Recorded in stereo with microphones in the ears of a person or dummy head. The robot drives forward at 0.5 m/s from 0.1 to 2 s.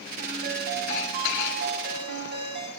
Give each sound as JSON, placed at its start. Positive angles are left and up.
{"t": 0.2, "sound": "a ringtone", "side_deg": -55, "distance_m": 7.0}